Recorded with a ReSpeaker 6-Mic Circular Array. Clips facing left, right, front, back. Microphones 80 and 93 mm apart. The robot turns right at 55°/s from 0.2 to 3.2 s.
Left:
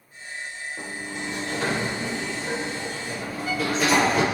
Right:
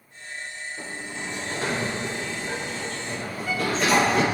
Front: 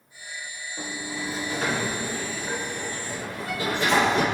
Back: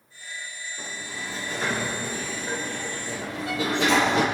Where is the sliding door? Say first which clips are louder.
Left 2 dB, front 5 dB; 45° left, 7 m; by 4.2 s straight behind, 7 m.